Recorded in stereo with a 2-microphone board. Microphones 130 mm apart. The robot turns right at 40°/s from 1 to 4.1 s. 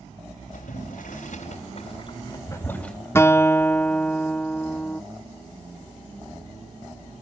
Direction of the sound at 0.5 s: 85° left.